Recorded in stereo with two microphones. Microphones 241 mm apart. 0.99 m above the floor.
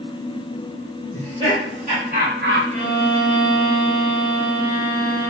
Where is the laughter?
25° right (ahead or behind), 2.5 m; by 2.6 s 50° right (ahead or behind), 0.7 m.